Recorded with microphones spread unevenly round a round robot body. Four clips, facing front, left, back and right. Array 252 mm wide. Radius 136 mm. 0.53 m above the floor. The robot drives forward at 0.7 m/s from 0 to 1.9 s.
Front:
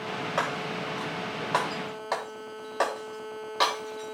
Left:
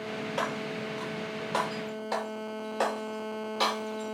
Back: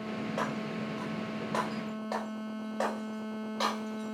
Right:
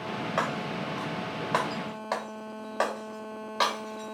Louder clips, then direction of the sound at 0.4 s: Right 2 dB, front 5 dB; 35° right.